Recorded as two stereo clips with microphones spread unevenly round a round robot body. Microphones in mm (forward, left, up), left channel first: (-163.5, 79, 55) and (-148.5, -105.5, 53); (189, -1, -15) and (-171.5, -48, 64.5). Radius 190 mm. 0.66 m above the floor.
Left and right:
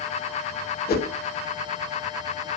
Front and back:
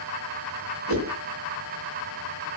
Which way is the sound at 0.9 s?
130° left.